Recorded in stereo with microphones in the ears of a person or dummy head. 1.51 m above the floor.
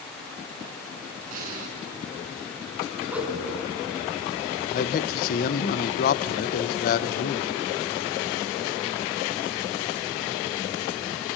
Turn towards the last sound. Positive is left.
turn(degrees=50)  # may be behind; listen again after turning